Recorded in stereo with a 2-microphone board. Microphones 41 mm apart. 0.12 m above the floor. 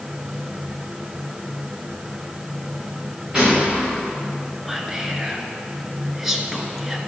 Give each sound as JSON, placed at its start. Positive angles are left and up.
{"t": 3.3, "sound": "a gunshot", "side_deg": -10, "distance_m": 4.0}
{"t": 4.7, "sound": "whispering", "side_deg": -5, "distance_m": 1.3}